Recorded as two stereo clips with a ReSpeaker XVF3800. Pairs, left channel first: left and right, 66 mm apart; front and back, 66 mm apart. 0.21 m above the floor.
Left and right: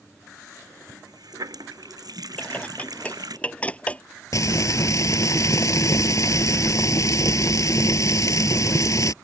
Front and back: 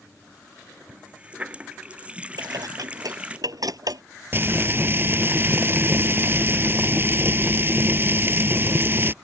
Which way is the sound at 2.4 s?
160° left.